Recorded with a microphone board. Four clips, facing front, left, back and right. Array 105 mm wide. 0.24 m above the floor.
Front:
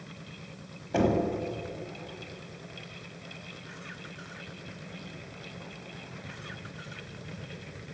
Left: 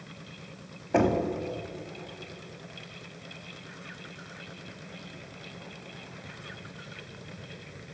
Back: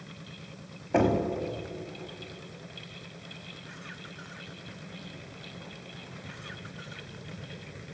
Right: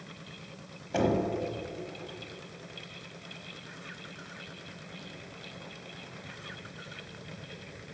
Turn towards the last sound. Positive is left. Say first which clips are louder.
# left 3 dB, back 1 dB
turn(degrees=125)